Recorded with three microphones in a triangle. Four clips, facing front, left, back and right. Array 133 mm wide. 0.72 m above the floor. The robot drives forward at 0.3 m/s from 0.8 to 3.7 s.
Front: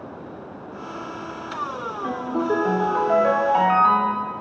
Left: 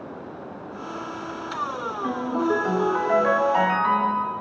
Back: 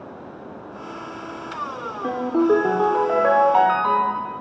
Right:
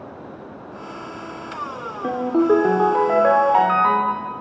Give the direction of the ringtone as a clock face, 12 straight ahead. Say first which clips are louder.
Right 7 dB, back 6 dB; 4 o'clock.